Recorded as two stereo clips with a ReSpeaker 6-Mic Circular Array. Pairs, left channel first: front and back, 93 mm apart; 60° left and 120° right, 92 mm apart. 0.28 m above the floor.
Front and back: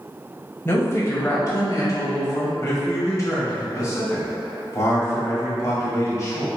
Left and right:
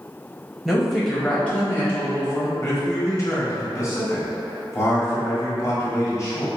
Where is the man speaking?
30° left, 1.5 m.